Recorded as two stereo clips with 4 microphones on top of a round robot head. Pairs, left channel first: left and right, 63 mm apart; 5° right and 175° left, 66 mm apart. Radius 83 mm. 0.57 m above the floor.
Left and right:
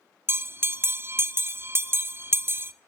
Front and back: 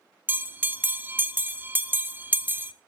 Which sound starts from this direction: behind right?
A bell, at 0.3 s.